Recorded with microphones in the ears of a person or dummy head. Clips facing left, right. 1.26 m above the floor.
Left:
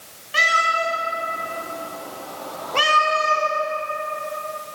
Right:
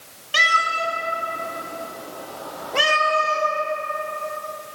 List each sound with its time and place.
0.3 s a cat meowing: 45° right (ahead or behind), 2.0 m; by 3.5 s 5° left (ahead or behind), 1.9 m